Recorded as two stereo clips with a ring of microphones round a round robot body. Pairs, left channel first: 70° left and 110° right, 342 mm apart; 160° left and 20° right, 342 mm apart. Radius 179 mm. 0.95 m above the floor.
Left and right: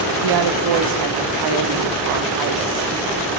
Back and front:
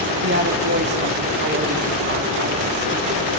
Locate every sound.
0.2 s a woman speaking: 85° right, 1.9 m